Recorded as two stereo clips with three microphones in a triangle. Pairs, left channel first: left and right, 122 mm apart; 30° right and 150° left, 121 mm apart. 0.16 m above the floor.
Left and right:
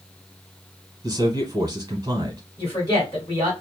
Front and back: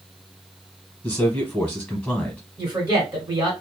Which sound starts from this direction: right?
A man speaking, at 1.0 s.